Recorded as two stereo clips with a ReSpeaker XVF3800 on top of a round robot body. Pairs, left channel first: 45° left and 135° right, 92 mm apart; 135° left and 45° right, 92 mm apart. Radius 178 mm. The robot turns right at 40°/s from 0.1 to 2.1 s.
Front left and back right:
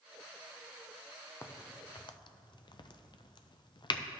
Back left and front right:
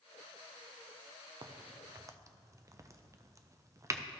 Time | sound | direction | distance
1.4 | a crack | 15° right | 0.6 m